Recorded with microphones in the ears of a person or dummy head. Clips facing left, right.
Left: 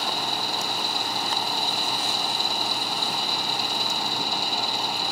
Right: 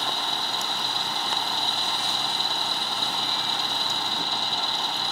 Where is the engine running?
15° left (ahead or behind).